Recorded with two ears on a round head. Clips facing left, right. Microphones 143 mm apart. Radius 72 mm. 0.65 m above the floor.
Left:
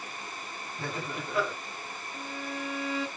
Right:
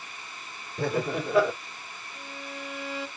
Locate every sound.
0.8 s laughter: 60° right (ahead or behind), 2.5 m
2.1 s a violin: 65° left (ahead or behind), 2.5 m